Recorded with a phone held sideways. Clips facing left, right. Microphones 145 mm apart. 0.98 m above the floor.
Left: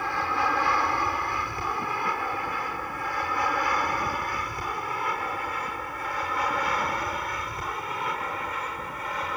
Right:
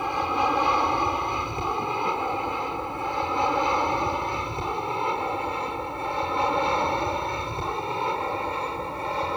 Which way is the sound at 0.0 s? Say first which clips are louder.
Right 3 dB; 20° right (ahead or behind).